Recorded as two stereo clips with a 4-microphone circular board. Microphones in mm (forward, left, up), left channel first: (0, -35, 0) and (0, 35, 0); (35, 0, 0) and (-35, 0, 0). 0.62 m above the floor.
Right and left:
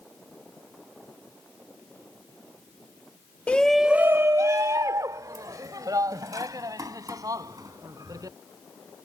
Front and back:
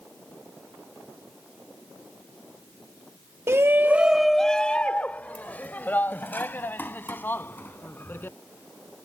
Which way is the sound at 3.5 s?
150° right.